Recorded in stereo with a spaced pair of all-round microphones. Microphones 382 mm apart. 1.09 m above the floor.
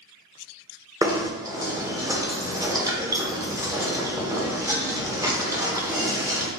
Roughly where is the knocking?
Centre.